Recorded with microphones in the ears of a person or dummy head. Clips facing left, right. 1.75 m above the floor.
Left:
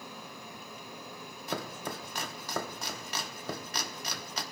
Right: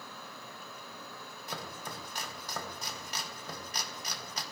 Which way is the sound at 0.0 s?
20° left (ahead or behind).